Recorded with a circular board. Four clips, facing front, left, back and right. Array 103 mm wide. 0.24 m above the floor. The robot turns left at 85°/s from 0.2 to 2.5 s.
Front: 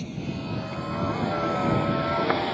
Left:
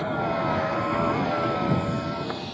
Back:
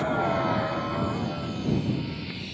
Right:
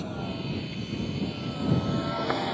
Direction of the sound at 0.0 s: 145° left.